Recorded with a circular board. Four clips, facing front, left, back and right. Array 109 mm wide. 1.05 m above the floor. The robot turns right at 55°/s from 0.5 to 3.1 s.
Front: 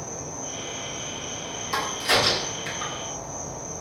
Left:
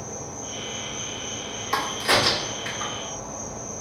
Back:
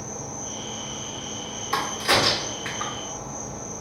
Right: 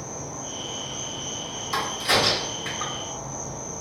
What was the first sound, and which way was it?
An insect, 35° right.